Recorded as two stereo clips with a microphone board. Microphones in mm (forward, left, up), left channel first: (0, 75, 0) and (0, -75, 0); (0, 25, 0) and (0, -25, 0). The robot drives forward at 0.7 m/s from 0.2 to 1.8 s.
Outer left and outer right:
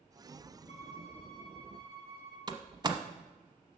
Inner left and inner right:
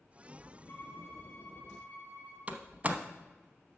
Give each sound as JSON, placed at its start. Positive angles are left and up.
{"t": 0.7, "sound": "a violin", "side_deg": 50, "distance_m": 2.5}
{"t": 2.5, "sound": "a door slam", "side_deg": -30, "distance_m": 0.8}